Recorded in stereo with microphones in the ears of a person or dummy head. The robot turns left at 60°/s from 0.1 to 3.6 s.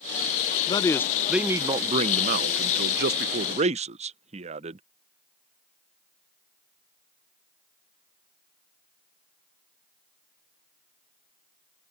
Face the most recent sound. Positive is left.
turn(degrees=-135)